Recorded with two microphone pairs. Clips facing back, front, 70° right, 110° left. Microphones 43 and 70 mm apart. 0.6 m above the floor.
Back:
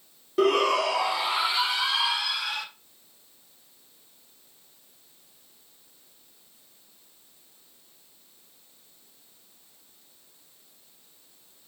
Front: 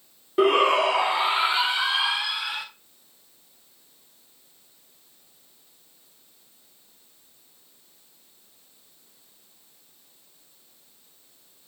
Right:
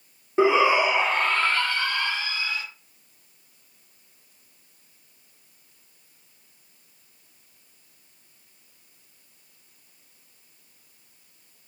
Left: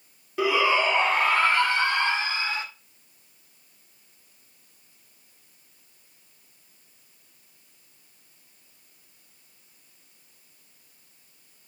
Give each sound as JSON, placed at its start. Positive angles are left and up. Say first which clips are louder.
{"t": 0.4, "sound": "a shout", "louder": "front 3 dB, right 4 dB", "azimuth_deg": -45, "distance_m": 0.8}